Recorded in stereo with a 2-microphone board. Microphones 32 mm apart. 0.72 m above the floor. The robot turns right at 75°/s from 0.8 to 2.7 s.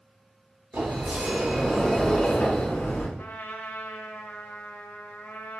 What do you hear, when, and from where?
0.7 s a sliding door: 85° right, 1.0 m; by 3.1 s 60° left, 1.0 m
3.2 s a trumpet: 70° left (ahead or behind), 0.6 m